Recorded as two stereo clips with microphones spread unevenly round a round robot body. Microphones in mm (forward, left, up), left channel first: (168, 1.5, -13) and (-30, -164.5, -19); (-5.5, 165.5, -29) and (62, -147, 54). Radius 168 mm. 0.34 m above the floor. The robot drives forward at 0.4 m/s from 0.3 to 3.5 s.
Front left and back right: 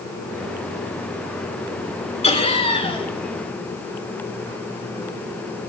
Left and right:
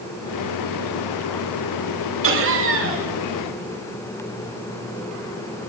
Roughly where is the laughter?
Ahead right.